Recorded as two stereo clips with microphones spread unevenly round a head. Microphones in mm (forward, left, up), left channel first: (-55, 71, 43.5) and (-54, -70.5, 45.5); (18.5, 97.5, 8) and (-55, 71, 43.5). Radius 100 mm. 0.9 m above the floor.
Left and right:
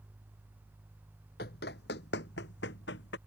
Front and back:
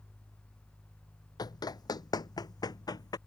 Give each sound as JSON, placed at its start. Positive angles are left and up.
{"t": 1.4, "sound": "running footsteps", "azimuth_deg": 70}